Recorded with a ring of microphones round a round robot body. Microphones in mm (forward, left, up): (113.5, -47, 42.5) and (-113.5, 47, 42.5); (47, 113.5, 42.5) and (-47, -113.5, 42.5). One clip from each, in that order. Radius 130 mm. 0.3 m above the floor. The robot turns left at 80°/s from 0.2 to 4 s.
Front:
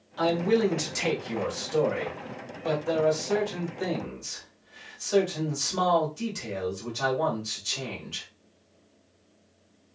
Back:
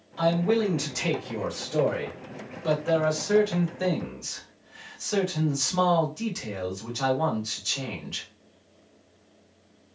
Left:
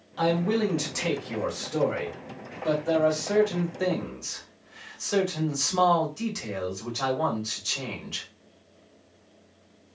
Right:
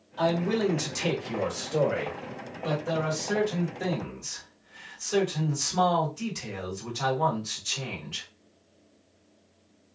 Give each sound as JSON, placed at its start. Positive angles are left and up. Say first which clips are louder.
{"t": 0.2, "sound": "a man speaking", "louder": "even, left 1 dB", "azimuth_deg": 25, "distance_m": 1.5}